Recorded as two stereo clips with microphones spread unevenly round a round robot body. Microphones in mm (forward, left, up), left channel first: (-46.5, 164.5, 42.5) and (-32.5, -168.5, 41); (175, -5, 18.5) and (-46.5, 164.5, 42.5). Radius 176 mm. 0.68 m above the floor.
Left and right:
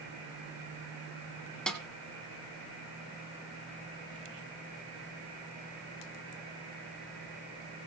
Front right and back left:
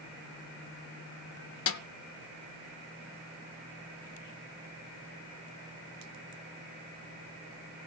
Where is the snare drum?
5° left, 1.0 m.